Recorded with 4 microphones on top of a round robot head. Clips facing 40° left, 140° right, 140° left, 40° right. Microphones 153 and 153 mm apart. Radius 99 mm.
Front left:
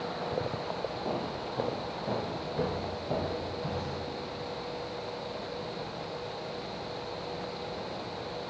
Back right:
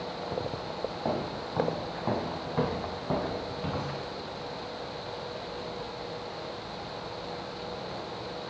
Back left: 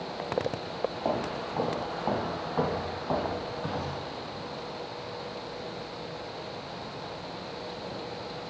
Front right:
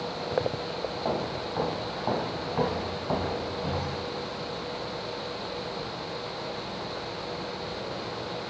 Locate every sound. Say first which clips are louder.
1.1 s footsteps: back right 2 dB, front right 2 dB; 145° right, 1.7 m; by 4.0 s 115° right, 3.5 m